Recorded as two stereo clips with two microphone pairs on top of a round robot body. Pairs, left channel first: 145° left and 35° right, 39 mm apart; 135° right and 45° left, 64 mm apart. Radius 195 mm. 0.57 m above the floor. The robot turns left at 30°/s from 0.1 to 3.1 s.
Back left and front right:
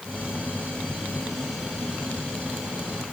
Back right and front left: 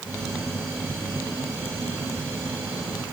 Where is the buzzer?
I don't hear a buzzer.